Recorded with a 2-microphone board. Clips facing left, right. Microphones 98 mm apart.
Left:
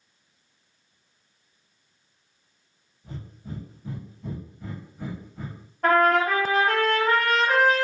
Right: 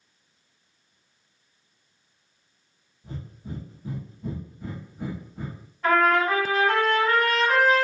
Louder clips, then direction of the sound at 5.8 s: Left 1 dB; 55° left (ahead or behind).